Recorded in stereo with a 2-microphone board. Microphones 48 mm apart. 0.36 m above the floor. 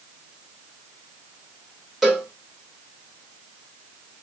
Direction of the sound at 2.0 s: 5° right (ahead or behind).